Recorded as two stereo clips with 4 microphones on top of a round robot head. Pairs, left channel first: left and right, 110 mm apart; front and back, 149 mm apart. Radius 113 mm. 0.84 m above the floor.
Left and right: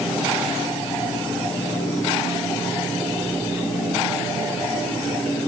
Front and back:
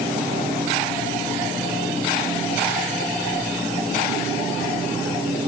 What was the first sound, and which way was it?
Only background noise.